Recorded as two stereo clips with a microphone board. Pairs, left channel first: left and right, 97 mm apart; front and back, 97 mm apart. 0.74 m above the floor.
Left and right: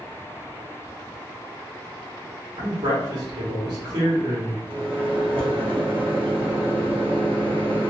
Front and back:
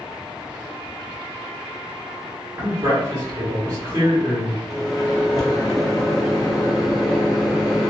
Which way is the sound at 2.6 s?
120° right.